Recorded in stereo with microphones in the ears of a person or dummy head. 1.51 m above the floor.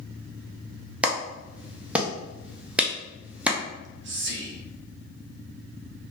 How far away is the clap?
About 0.5 m.